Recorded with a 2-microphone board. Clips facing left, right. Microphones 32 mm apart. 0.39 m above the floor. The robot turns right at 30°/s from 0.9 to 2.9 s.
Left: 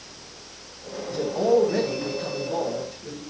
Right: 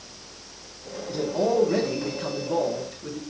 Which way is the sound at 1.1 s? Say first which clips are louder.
Left 3 dB; 120° right.